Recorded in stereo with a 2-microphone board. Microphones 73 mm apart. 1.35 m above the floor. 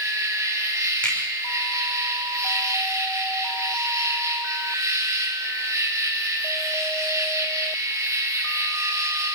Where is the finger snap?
15° left (ahead or behind), 5 m.